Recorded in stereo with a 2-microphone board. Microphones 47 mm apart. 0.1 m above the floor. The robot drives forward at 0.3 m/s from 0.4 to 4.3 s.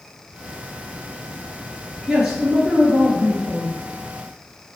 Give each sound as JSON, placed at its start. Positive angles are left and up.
{"t": 2.1, "sound": "a man speaking", "side_deg": -10, "distance_m": 1.8}